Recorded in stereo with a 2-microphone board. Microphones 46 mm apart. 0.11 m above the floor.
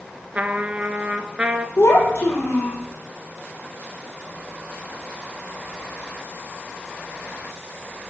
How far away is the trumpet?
About 0.6 m.